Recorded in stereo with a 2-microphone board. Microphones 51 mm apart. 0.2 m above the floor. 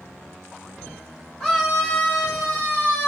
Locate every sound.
1.4 s a scream: 10° left (ahead or behind), 1.6 m; by 3.1 s 40° left (ahead or behind), 1.6 m